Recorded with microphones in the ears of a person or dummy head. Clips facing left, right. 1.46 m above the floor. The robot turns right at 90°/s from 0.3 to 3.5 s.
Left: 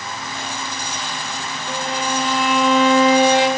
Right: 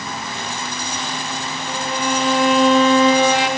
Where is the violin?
135° left, 5 m; by 3.5 s 65° right, 5 m.